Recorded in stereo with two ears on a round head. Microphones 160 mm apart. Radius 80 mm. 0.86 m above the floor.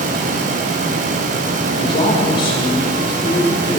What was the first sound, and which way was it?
A man speaking, 30° left (ahead or behind).